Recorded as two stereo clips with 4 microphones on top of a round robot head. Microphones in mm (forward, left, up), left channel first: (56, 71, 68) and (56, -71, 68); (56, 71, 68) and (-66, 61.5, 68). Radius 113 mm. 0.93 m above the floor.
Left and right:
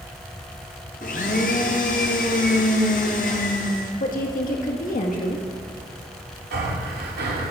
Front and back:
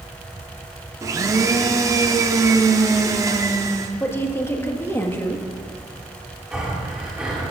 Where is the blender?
130° left, 0.5 m.